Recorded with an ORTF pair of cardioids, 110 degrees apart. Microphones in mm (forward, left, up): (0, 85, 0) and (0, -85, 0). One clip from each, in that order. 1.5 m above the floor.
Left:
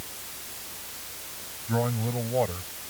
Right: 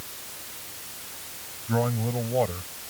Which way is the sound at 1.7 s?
10° right.